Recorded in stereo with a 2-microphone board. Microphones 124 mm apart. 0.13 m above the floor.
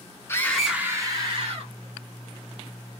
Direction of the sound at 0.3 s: 20° left (ahead or behind).